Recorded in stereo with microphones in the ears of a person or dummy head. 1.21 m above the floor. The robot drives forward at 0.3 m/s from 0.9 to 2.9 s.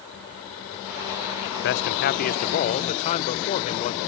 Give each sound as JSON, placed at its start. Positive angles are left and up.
{"t": 1.6, "sound": "a man speaking", "side_deg": 60, "distance_m": 0.5}